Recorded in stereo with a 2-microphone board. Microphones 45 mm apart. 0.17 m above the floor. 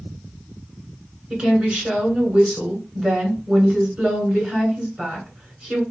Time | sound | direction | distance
1.3 | a woman speaking | 20° right (ahead or behind) | 2.0 m